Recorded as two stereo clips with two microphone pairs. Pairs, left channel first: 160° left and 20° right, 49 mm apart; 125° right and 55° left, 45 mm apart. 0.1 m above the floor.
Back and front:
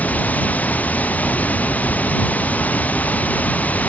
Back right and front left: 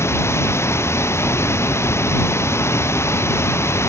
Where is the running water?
140° right.